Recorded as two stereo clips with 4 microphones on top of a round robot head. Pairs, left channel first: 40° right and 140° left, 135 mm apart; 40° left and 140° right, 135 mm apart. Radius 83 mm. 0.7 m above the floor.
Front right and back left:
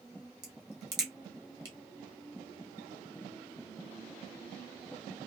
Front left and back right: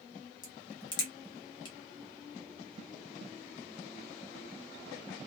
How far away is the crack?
About 0.5 m.